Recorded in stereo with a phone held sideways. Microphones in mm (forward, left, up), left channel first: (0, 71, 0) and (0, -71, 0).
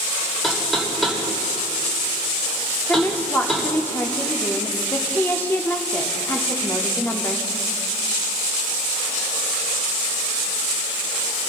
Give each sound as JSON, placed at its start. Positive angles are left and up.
{"t": 0.4, "sound": "knocking", "side_deg": 0, "distance_m": 2.5}
{"t": 2.9, "sound": "a woman speaking", "side_deg": 15, "distance_m": 0.8}